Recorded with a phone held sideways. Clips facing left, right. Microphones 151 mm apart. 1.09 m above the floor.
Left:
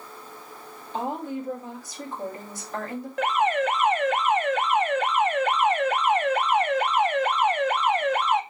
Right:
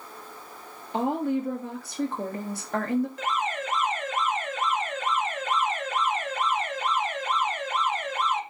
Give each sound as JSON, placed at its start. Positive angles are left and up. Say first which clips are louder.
{"t": 0.9, "sound": "a woman speaking", "louder": "right 4 dB", "side_deg": -60, "distance_m": 1.6}
{"t": 3.2, "sound": "an alarm", "louder": "left 7 dB", "side_deg": 65, "distance_m": 0.6}